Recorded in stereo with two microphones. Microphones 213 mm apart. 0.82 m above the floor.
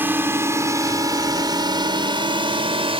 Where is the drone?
10° right (ahead or behind); by 3.0 s 25° right (ahead or behind).